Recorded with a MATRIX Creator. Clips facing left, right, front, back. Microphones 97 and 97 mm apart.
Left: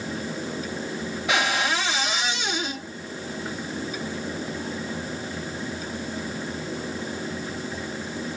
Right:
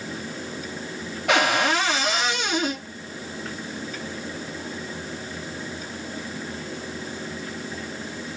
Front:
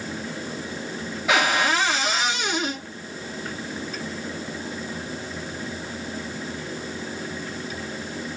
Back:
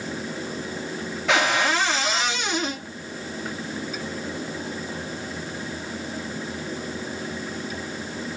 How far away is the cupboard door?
About 2.5 m.